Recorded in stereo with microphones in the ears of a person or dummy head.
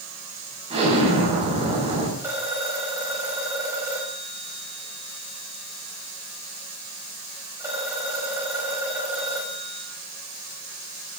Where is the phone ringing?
15° right (ahead or behind), 6 m.